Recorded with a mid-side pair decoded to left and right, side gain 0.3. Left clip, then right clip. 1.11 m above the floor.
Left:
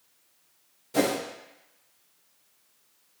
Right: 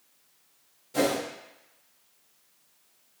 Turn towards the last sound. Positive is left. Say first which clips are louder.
# even
turn(degrees=60)